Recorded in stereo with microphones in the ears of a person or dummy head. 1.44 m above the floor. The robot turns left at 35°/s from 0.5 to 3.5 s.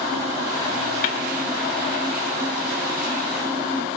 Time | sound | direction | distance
1.0 | a snare drum | 30° left (ahead or behind) | 0.6 m